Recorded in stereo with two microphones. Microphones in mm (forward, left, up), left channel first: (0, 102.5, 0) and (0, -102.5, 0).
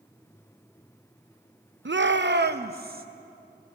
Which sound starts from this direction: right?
A shout, at 1.9 s.